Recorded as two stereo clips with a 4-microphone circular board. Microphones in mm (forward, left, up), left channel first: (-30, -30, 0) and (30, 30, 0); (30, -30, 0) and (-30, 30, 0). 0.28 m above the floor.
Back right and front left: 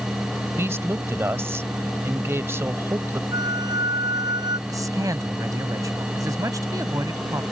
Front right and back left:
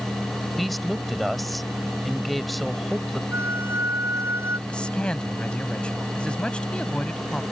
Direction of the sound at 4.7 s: 30° left.